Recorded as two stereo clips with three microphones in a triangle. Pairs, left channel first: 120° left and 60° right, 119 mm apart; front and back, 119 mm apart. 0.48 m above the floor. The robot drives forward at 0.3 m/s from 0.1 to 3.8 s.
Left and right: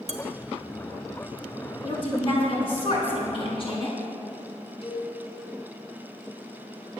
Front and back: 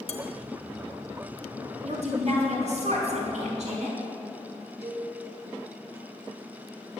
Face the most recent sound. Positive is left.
turn(degrees=155)